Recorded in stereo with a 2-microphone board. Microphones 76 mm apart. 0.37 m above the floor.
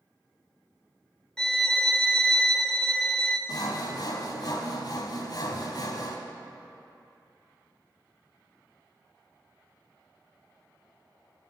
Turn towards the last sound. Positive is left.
turn(degrees=55)  # may be behind; listen again after turning